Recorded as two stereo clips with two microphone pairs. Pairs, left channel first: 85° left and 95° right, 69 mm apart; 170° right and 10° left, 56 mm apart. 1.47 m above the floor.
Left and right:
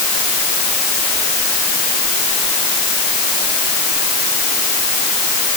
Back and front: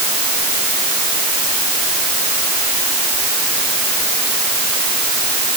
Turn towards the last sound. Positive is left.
No sound to turn to.